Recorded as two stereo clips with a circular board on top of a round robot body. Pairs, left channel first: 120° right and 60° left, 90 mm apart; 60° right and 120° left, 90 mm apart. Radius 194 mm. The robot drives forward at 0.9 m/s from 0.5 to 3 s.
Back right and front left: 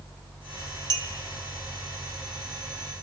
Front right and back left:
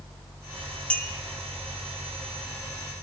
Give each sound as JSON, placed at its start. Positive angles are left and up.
{"t": 0.9, "sound": "a clink", "azimuth_deg": 15, "distance_m": 3.0}